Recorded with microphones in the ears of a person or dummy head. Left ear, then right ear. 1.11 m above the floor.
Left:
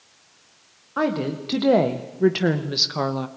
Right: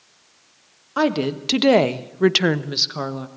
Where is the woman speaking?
80° right, 1.5 m; by 3.3 s 20° left (ahead or behind), 0.9 m.